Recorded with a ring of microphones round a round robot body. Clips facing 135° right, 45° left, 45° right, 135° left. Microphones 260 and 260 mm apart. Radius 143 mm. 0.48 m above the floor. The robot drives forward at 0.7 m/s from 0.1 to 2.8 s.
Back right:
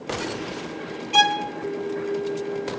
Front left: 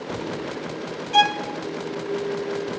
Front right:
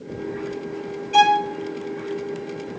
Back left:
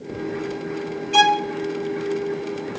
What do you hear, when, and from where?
1.1 s a violin: 175° left, 0.7 m